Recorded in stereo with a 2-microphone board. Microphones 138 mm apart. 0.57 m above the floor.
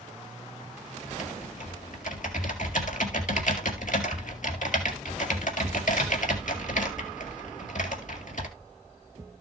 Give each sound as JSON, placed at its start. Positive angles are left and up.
{"t": 1.1, "sound": "typing on a keyboard", "side_deg": 70, "distance_m": 1.9}